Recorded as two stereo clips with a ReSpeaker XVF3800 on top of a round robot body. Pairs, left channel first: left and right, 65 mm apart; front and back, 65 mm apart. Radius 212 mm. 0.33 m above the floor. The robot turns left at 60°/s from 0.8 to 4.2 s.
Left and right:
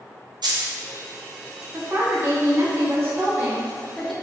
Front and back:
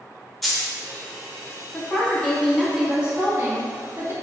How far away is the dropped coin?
About 0.7 m.